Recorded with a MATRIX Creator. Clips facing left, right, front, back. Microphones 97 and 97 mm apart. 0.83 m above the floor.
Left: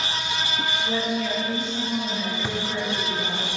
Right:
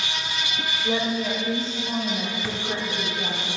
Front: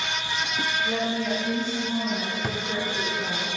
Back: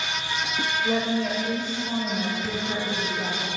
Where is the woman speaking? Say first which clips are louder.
Right 3 dB, back 4 dB; 140° right, 3 m; by 3.4 s 150° right, 5.5 m.